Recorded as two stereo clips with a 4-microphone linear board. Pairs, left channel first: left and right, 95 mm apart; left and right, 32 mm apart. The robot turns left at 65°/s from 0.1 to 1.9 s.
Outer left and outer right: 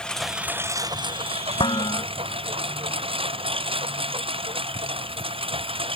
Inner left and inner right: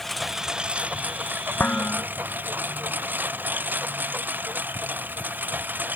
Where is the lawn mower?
10° left; by 6.0 s 110° right.